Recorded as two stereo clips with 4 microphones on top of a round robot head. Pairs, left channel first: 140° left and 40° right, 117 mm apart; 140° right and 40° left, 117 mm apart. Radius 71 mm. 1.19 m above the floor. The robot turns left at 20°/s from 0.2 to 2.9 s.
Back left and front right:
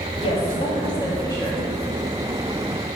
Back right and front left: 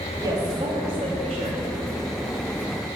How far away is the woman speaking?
About 2.5 m.